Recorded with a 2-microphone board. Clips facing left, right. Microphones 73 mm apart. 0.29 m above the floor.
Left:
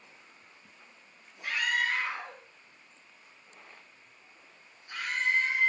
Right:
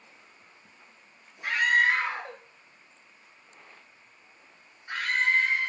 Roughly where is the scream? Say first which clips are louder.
Right 7 dB; right.